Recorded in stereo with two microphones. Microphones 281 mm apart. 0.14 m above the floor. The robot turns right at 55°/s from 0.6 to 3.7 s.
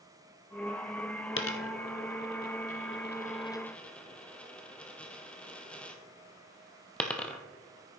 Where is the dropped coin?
45° left (ahead or behind), 1.0 m; by 7.4 s 5° left (ahead or behind), 1.0 m.